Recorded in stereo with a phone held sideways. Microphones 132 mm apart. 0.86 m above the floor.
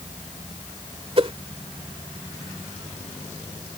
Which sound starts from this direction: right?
A whoosh, at 1.2 s.